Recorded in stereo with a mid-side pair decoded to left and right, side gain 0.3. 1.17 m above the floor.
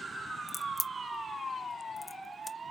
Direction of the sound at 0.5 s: 40° left.